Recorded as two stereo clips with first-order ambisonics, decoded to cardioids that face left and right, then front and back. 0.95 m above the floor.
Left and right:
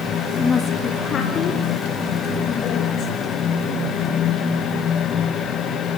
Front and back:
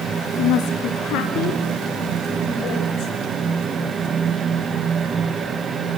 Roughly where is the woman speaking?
Ahead.